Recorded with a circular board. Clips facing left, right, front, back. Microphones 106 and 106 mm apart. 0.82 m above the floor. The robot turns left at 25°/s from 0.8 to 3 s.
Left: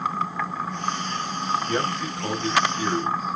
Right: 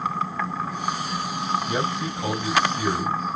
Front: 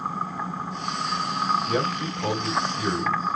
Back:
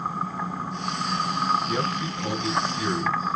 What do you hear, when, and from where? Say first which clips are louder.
1.7 s a man speaking: even, front 1 dB; 20° right, 3 m; by 3.4 s 50° right, 3 m